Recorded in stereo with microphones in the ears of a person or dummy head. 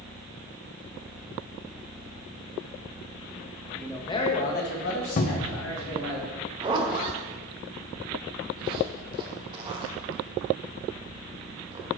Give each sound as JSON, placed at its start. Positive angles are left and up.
{"t": 3.8, "sound": "a man speaking", "side_deg": 5, "distance_m": 1.2}
{"t": 5.2, "sound": "a cupboard door", "side_deg": 40, "distance_m": 0.6}
{"t": 6.6, "sound": "a zipper", "side_deg": -30, "distance_m": 1.0}